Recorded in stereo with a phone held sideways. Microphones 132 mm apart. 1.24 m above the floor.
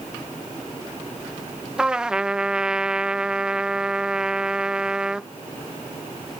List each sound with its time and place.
1.8 s a trumpet: 5° right (ahead or behind)